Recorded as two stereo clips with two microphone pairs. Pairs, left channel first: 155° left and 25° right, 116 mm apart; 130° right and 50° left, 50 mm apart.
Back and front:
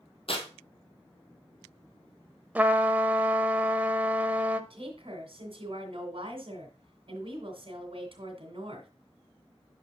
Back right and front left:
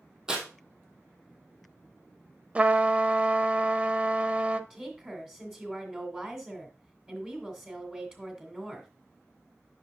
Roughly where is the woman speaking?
Ahead.